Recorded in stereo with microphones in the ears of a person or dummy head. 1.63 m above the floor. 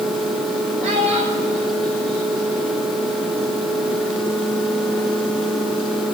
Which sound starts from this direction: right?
A child speaking, at 0.8 s.